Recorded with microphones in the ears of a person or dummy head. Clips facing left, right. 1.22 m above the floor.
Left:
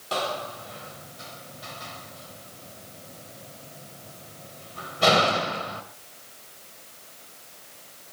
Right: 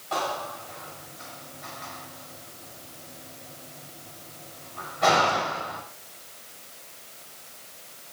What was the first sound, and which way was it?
A door slam, 50° left (ahead or behind).